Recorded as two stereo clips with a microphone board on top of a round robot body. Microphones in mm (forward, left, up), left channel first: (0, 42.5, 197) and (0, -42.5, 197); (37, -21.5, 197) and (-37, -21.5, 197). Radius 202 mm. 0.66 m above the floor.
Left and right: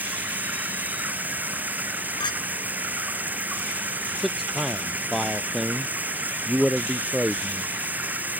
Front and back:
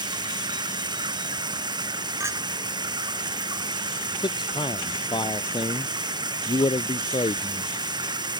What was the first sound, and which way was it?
Running water, 160° right.